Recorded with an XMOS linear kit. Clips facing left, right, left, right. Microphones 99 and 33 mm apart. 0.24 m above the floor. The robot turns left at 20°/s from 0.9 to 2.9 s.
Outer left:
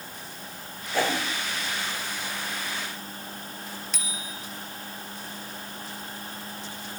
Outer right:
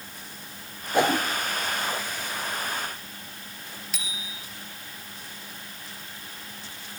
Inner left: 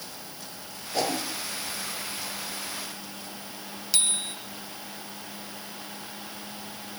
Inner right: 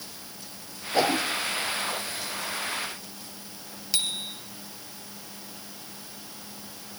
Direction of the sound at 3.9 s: Centre (ahead or behind).